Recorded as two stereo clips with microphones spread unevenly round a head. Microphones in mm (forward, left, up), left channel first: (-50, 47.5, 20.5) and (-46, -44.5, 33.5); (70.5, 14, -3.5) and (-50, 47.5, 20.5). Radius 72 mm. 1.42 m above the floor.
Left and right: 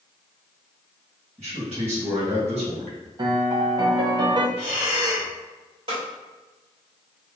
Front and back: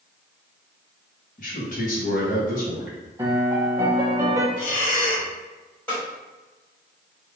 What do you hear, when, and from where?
1.4 s a man speaking: 55° right, 1.9 m
3.2 s a piano: 125° right, 0.9 m
4.6 s breathing: 5° right, 1.8 m
5.9 s a snare drum: 100° right, 2.0 m